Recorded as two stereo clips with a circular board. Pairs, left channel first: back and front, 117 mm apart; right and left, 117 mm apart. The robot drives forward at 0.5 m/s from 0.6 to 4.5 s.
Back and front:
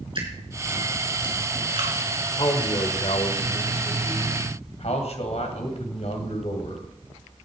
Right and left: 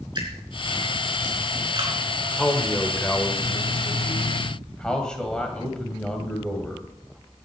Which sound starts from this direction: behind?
A man speaking, at 2.4 s.